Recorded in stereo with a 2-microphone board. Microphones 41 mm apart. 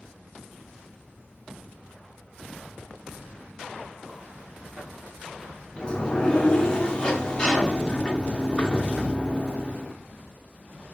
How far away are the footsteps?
About 2.5 m.